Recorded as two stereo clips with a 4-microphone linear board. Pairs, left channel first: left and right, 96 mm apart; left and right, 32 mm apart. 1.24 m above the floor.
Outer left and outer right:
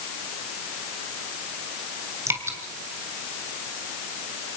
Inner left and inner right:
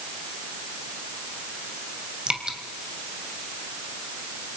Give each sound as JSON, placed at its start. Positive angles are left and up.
{"t": 2.3, "sound": "dripping", "side_deg": -25, "distance_m": 2.5}